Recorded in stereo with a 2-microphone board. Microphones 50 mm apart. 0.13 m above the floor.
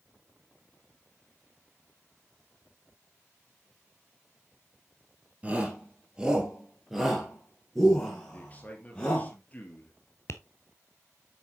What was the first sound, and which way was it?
A shout, 25° right (ahead or behind).